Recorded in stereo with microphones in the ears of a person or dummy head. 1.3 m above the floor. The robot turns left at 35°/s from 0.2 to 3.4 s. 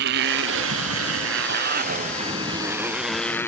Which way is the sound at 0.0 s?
60° right (ahead or behind).